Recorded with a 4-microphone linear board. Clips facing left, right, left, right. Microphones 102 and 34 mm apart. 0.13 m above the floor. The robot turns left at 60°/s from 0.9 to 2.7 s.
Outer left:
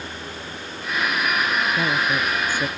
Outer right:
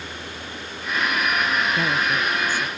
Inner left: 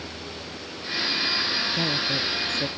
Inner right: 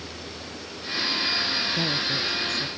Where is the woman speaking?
Straight behind; by 2.7 s 120° left.